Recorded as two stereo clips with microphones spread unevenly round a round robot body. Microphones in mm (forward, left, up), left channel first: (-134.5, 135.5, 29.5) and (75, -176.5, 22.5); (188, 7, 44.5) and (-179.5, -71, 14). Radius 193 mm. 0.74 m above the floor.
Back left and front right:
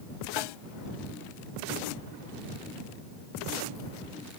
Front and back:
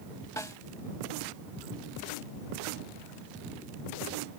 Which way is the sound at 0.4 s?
95° left.